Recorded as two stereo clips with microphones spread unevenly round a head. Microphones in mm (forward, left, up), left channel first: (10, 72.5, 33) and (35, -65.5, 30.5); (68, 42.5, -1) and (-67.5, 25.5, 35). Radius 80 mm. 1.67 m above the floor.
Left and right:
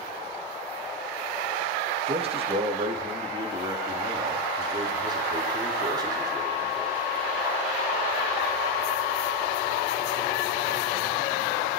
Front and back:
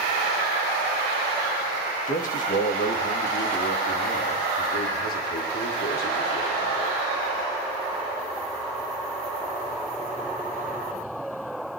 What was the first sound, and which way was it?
A man speaking, 30° right.